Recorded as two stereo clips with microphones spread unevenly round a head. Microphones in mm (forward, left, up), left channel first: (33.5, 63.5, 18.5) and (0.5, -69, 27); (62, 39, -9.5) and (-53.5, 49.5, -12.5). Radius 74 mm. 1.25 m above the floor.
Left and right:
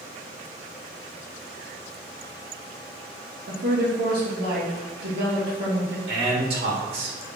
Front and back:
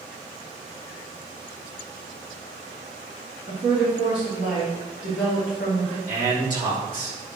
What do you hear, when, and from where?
3.5 s a woman speaking: 100° right, 2.5 m
6.1 s a man speaking: 120° right, 2.5 m